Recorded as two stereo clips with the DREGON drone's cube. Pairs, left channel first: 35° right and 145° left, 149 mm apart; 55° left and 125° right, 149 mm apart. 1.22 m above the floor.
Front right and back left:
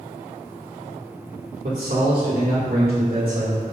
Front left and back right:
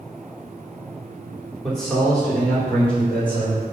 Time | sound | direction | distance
1.6 | a man speaking | 145° left | 3 m